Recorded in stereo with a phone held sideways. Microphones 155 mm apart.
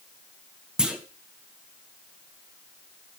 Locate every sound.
0.8 s a clunk: 5° right (ahead or behind), 0.9 m